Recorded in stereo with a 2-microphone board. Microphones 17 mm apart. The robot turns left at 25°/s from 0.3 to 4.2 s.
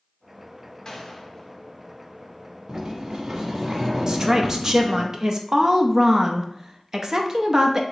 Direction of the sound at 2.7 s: 100° right.